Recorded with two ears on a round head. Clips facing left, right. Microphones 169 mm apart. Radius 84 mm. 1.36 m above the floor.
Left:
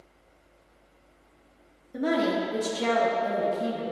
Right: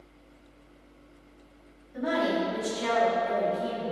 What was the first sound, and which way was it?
A woman speaking, 60° left (ahead or behind).